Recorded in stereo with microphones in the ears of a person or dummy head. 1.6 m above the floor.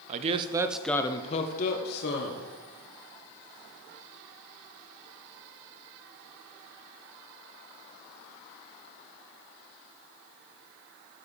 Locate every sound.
0.1 s a man speaking: 45° right (ahead or behind), 0.8 m; by 2.5 s 65° left (ahead or behind), 1.4 m